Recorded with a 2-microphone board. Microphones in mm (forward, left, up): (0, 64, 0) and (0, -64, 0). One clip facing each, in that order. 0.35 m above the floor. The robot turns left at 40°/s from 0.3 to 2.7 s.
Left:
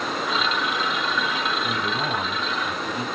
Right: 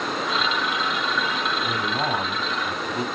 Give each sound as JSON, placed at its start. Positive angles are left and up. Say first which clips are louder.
{"t": 1.6, "sound": "a man speaking", "louder": "right 1 dB", "azimuth_deg": -105, "distance_m": 2.5}